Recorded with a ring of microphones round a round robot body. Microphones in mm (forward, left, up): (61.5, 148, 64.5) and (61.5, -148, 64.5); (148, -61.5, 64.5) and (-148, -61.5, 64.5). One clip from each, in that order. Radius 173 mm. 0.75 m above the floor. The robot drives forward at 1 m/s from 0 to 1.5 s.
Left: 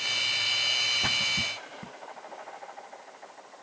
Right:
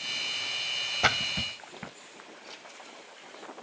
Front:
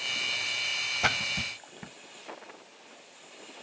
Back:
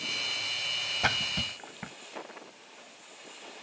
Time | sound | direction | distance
1.0 | a splash | 75° right | ?